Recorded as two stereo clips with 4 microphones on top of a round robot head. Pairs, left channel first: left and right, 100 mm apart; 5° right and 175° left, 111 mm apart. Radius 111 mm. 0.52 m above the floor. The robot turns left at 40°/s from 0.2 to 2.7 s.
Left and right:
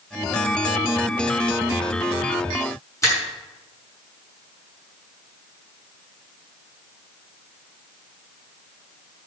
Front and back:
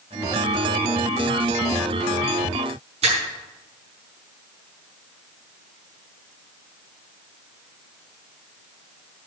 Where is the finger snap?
150° left, 5.5 m.